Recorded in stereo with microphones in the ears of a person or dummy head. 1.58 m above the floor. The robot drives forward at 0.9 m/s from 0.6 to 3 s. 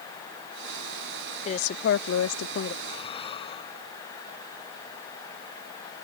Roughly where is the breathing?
Left.